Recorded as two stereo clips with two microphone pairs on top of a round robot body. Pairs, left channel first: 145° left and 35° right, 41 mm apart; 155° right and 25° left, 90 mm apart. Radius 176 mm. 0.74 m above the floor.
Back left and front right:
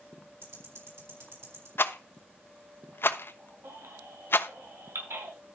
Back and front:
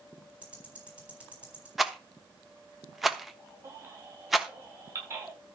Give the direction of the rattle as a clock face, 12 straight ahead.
8 o'clock.